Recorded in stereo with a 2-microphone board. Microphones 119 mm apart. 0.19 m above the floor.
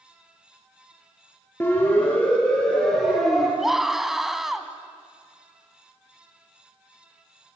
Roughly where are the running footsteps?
No running footsteps in this recording.